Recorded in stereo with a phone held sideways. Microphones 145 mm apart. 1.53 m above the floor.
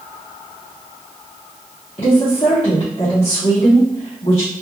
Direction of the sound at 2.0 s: 45° left (ahead or behind).